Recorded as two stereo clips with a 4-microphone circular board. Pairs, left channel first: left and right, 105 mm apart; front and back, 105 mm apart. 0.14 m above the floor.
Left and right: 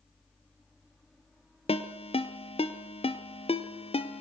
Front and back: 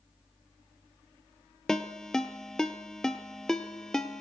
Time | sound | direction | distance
1.7 | a ringtone | 85° left | 1.4 m